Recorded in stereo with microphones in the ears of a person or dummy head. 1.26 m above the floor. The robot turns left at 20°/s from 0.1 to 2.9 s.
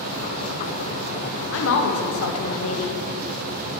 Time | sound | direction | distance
1.5 | a woman speaking | 75° left (ahead or behind) | 0.8 m